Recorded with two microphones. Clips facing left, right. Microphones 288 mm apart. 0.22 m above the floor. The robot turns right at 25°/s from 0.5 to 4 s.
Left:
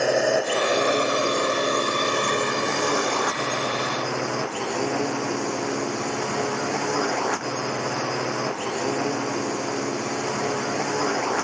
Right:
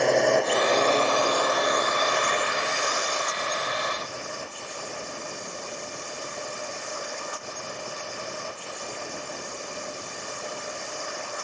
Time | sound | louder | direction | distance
0.0 | a drone | even | 5° left | ?